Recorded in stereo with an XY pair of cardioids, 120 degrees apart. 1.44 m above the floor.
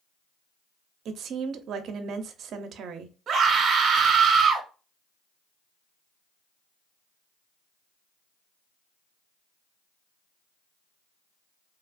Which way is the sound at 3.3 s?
55° right.